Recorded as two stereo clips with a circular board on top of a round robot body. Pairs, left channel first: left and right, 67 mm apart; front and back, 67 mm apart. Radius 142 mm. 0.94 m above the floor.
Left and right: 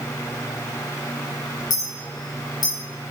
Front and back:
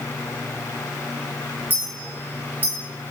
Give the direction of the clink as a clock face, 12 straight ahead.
8 o'clock.